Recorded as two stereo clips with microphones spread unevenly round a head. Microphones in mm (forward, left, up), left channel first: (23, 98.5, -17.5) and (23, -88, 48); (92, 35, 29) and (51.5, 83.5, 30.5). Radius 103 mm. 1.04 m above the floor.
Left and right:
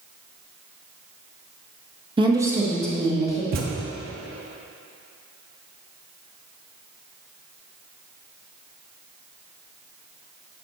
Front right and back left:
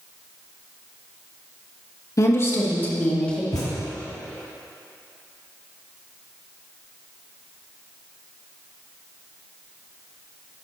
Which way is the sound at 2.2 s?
20° right.